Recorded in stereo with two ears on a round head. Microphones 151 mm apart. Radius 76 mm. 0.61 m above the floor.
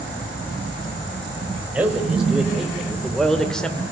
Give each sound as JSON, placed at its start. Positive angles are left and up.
{"t": 1.7, "sound": "a man speaking", "side_deg": -5, "distance_m": 3.5}